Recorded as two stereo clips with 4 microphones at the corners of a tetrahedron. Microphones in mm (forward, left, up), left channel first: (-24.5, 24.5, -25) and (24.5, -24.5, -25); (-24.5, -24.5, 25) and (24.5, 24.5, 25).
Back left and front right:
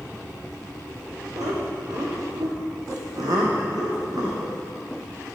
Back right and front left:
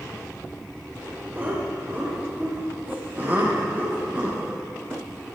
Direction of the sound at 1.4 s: 20° right.